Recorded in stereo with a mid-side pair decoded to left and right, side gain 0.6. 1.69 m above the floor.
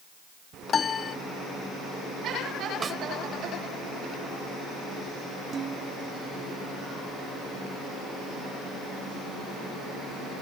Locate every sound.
0.7 s a piano: 35° left
2.8 s a snare drum: 30° right
5.5 s dishes clattering: 35° right